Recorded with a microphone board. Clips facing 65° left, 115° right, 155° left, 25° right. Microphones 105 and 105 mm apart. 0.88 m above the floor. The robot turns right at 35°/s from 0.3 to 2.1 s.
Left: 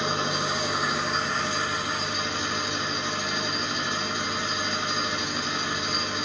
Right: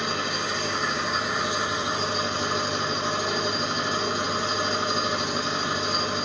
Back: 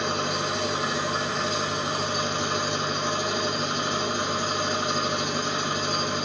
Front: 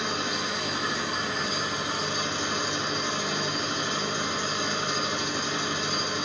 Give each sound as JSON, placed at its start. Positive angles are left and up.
{"t": 0.0, "sound": "an engine running", "azimuth_deg": 130, "distance_m": 1.7}